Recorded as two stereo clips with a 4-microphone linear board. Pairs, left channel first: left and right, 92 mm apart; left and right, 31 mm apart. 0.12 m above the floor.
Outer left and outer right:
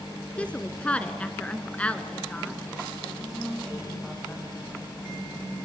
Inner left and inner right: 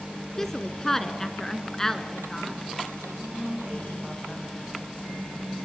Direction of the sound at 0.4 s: 15° left (ahead or behind).